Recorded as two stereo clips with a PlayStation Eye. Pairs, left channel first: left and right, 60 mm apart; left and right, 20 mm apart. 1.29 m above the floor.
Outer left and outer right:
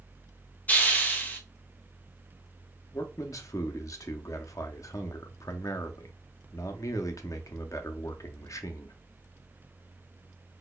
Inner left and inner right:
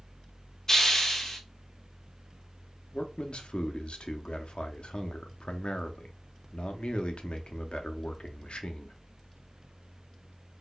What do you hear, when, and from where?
0.7 s a hiss: 25° left (ahead or behind), 0.7 m
2.9 s a man speaking: 60° left (ahead or behind), 0.6 m